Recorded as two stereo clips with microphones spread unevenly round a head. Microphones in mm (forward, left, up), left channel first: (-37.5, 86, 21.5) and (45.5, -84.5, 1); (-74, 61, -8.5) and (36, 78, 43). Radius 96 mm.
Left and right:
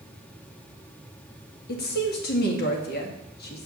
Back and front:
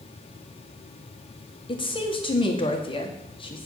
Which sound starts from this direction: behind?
A woman speaking, at 1.7 s.